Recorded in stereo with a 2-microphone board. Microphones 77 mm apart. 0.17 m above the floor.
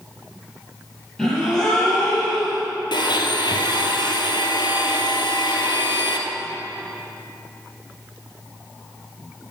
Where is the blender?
75° left (ahead or behind), 1.5 m.